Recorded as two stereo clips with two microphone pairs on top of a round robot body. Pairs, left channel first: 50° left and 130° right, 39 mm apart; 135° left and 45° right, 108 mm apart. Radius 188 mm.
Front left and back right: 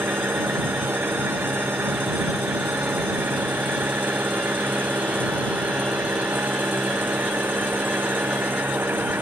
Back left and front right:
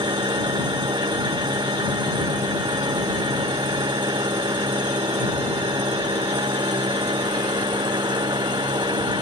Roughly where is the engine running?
Right.